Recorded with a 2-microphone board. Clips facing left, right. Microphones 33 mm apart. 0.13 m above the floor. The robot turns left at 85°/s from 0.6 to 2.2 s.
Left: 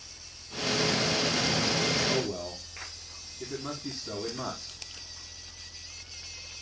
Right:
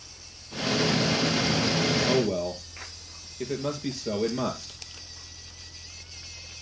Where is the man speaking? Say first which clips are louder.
Right 5 dB; 55° right (ahead or behind), 2.5 m; by 4.7 s 60° right (ahead or behind), 2.5 m.